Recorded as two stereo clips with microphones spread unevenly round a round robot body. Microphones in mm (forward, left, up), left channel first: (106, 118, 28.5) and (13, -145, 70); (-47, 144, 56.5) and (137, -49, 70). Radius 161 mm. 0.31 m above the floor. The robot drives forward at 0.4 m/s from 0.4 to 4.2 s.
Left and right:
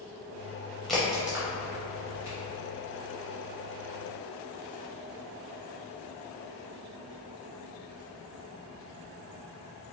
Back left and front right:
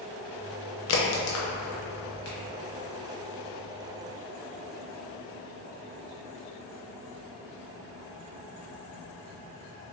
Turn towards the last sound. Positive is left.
turn(degrees=175)